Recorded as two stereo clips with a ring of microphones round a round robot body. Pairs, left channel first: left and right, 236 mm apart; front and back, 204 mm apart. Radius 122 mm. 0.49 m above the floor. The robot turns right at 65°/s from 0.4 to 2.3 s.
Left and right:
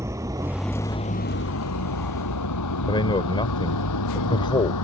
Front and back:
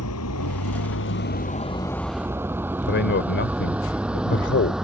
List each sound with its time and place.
0.0 s a vehicle: 10° right; by 4.8 s 95° left
2.9 s a man speaking: 20° left